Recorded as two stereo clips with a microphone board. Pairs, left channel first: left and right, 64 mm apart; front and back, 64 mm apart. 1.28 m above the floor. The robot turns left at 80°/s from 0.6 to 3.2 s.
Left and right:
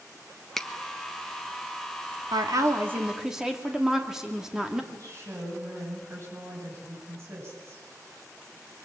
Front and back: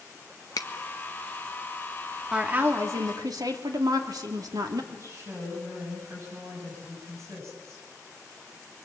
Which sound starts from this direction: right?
A woman speaking, at 2.3 s.